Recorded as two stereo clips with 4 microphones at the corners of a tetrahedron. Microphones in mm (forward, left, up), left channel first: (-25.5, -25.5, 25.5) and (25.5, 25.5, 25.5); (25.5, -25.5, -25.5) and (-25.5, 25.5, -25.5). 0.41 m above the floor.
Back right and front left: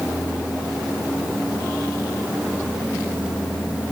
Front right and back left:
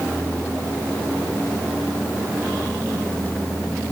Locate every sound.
Only background noise.